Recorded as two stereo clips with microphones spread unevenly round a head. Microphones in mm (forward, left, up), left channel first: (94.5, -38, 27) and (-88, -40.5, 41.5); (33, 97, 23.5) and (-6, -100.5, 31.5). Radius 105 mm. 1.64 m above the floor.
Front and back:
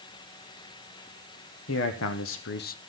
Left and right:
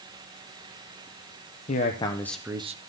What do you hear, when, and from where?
1.7 s a man speaking: 20° left, 1.3 m; by 2.8 s 50° right, 0.8 m